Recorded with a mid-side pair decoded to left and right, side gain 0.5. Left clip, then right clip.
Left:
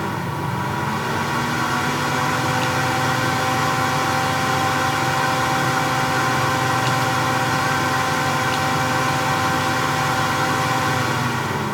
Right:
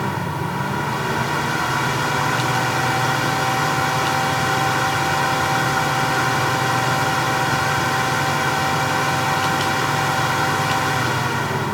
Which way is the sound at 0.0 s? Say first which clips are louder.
Right 1 dB; 5° right.